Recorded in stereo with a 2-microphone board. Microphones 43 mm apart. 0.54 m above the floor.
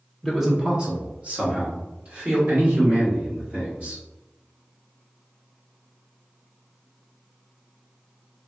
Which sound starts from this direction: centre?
A man speaking, at 0.2 s.